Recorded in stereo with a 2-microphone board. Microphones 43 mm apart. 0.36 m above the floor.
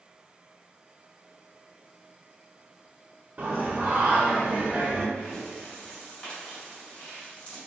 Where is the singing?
30° right (ahead or behind), 0.9 m.